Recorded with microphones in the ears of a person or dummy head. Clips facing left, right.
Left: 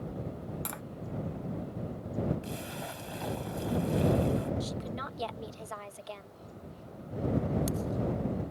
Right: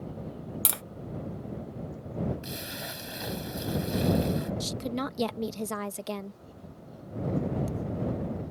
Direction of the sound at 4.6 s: 65° right (ahead or behind).